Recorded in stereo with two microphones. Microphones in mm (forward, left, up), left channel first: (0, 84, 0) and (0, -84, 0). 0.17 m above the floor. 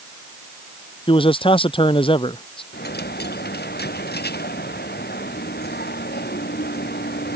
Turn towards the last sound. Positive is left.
turn(degrees=70)  # may be behind; listen again after turning